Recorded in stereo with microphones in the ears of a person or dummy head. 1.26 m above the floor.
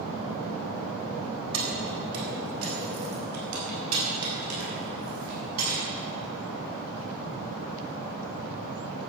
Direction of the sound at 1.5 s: 70° right (ahead or behind).